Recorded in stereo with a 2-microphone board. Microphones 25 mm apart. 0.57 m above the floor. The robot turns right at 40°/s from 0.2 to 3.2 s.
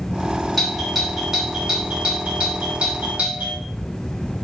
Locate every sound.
0.6 s a doorbell: 5° left (ahead or behind), 4 m; by 3.6 s 65° right (ahead or behind), 4 m